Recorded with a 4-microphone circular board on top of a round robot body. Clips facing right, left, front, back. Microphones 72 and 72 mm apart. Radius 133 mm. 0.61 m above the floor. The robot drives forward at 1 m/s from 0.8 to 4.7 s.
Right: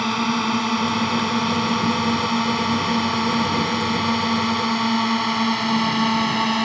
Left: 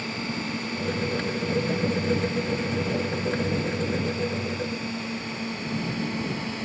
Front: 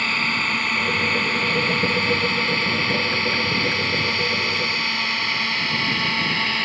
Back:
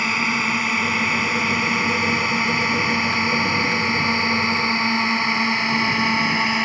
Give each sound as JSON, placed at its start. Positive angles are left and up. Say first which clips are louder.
{"t": 0.0, "sound": "a drone", "louder": "right 10 dB, back 2 dB", "azimuth_deg": -100}